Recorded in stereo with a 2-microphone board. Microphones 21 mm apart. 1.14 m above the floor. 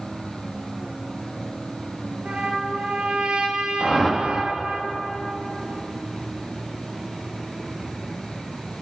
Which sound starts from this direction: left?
A whoosh, at 3.8 s.